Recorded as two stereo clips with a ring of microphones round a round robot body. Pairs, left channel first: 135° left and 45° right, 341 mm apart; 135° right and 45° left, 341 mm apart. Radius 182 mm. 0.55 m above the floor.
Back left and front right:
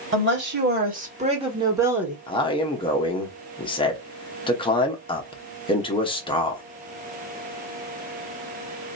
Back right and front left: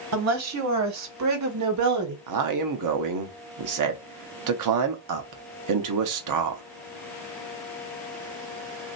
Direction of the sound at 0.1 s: 5° left.